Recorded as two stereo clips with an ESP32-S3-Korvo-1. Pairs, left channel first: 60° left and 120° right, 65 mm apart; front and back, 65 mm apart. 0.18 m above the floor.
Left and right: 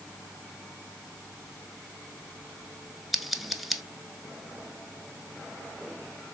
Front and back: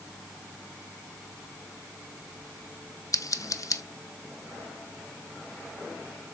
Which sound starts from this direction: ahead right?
Scissors, at 3.1 s.